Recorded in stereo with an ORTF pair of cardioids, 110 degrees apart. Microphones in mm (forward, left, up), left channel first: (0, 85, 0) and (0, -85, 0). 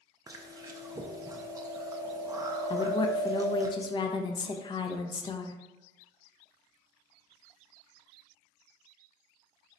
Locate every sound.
0.3 s chewing: 20° right, 0.6 m
2.7 s a woman speaking: 30° left, 0.6 m